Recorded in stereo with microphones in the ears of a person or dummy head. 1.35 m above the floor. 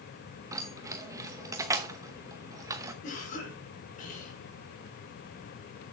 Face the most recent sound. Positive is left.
turn(degrees=45)  # may be behind; listen again after turning